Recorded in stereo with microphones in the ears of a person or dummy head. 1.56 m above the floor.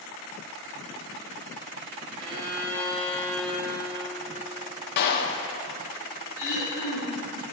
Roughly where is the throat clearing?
Left.